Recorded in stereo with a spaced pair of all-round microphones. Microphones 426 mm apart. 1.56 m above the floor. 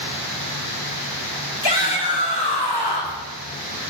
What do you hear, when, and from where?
1.6 s a shout: 65° left (ahead or behind), 2.0 m